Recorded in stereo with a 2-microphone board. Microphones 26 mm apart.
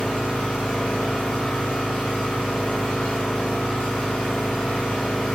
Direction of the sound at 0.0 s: 55° left (ahead or behind).